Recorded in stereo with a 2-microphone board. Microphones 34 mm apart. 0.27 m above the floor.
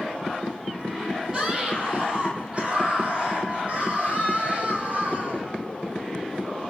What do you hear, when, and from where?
1.3 s a scream: 25° right (ahead or behind), 7 m; by 5.5 s 45° right (ahead or behind), 11 m